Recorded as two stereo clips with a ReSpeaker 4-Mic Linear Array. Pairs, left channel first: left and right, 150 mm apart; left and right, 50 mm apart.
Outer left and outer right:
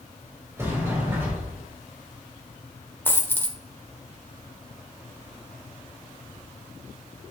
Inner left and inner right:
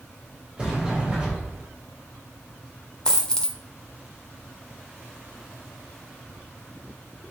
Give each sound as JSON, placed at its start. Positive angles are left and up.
{"t": 0.6, "sound": "a sliding door", "side_deg": -15, "distance_m": 3.5}
{"t": 3.0, "sound": "a dropped coin", "side_deg": 15, "distance_m": 1.2}